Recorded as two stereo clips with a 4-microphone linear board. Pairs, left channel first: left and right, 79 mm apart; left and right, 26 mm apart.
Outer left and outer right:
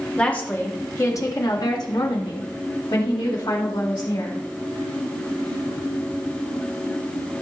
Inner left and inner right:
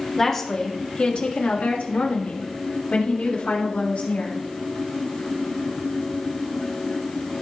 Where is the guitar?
No guitar in this recording.